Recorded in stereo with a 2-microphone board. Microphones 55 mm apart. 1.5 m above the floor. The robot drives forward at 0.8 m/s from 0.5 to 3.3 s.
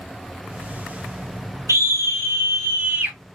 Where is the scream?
65° right (ahead or behind), 1.3 m; by 3.2 s 35° right (ahead or behind), 2 m.